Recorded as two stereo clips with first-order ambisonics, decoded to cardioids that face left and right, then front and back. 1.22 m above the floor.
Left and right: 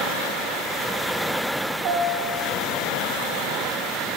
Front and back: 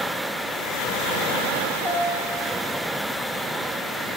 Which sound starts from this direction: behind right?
A piano, at 1.8 s.